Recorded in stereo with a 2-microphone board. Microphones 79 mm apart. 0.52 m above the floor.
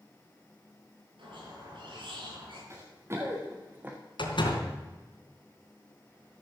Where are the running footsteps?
35° right (ahead or behind), 4 m; by 4.0 s 20° right (ahead or behind), 2.5 m.